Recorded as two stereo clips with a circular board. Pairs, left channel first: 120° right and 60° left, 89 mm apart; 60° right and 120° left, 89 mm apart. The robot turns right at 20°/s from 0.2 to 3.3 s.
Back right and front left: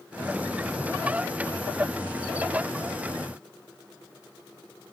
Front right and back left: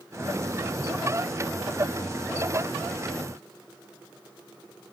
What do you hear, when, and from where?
Only background noise.